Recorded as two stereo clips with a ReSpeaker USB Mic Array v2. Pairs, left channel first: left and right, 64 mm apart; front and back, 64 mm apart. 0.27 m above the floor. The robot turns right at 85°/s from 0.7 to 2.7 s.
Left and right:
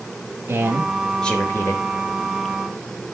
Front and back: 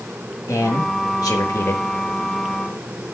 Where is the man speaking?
35° right, 4.5 m; by 1.9 s 65° left, 4.5 m.